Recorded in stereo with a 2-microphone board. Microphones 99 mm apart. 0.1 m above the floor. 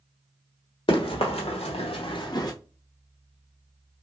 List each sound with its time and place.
0.9 s running footsteps: 60° left (ahead or behind), 1.3 m; by 2.5 s 35° left (ahead or behind), 0.9 m